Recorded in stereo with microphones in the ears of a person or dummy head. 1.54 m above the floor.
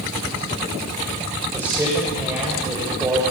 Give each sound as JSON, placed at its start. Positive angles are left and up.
{"t": 1.5, "sound": "a man speaking", "side_deg": -15, "distance_m": 7.5}